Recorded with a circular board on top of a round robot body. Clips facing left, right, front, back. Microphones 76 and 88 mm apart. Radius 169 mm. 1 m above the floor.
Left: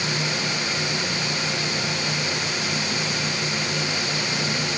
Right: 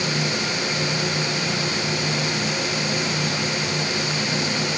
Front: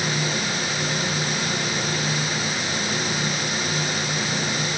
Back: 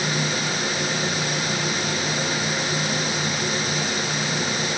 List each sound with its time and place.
Only background noise.